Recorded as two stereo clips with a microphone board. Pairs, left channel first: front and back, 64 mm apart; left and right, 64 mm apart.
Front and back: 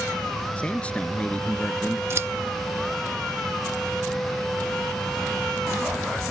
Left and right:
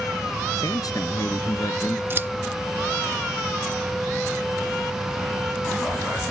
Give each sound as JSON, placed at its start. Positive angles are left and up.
{"t": 0.6, "sound": "a man speaking", "azimuth_deg": 70}
{"t": 2.1, "sound": "scissors", "azimuth_deg": -140}